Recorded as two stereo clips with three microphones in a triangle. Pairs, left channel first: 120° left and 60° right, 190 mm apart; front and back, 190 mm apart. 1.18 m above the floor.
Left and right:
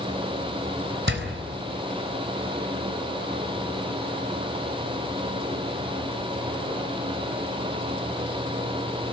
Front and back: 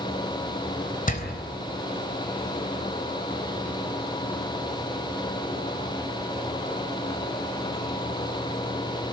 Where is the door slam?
45° right, 3.5 m.